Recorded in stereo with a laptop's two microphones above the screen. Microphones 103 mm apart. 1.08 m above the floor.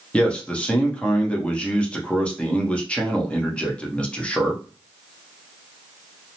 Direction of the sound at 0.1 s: 10° left (ahead or behind).